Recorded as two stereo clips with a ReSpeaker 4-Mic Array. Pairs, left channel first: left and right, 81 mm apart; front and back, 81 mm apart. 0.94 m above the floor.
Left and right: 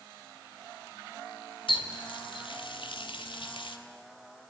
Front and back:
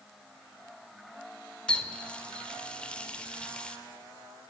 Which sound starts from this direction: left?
A running tap, at 1.7 s.